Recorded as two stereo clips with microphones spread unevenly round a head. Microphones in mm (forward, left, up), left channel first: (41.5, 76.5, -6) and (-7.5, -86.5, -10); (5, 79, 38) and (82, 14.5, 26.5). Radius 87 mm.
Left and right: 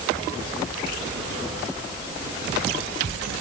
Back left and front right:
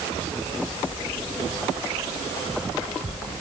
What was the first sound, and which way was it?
Only background noise.